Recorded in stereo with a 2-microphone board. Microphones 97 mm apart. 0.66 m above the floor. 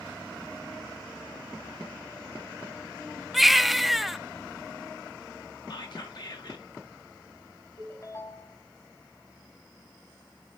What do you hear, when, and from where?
3.3 s a baby crying: centre (ahead or behind), 0.5 m
5.7 s whispering: 50° left (ahead or behind), 2.0 m
7.8 s a ringtone: 30° left (ahead or behind), 3 m